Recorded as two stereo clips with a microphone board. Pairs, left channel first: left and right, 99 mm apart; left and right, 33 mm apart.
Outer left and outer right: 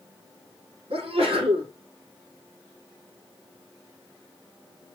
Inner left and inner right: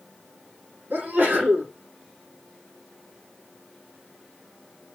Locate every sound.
0.9 s a sneeze: 70° right (ahead or behind), 5.5 m